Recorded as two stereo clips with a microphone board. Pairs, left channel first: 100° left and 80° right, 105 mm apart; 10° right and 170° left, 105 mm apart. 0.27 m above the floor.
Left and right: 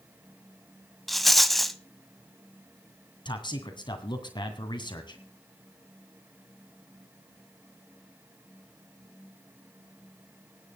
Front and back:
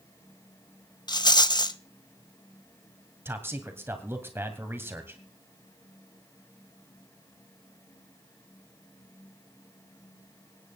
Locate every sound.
1.1 s a rattle: 10° left, 0.7 m
3.2 s a man speaking: 110° left, 2 m